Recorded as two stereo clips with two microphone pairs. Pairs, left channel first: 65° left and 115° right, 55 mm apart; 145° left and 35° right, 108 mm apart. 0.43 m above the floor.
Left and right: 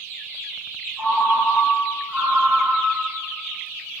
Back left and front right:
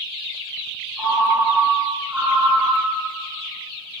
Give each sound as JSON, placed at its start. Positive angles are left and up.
{"t": 1.0, "sound": "a ringtone", "azimuth_deg": -115, "distance_m": 1.2}